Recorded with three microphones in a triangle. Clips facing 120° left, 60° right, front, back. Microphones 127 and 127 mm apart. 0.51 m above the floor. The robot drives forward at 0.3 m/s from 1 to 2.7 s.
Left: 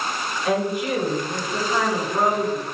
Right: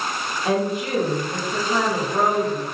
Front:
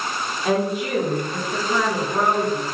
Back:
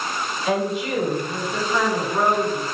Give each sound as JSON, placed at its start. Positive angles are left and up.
{"t": 0.5, "sound": "a woman speaking", "azimuth_deg": -10, "distance_m": 1.5}